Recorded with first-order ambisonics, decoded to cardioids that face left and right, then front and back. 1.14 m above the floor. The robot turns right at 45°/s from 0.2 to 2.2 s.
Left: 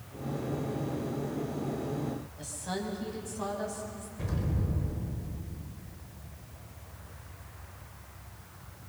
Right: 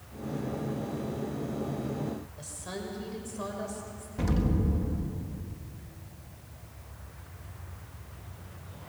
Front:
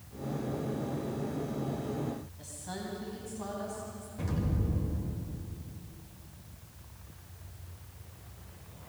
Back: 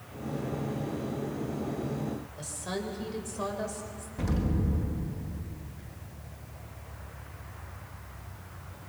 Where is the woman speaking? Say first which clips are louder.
Left 3 dB, back 6 dB; 160° right, 5 m.